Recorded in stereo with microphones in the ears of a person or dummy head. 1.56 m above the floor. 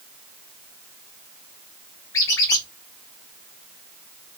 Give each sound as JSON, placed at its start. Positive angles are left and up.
{"t": 2.1, "sound": "a squeak", "side_deg": 15, "distance_m": 0.7}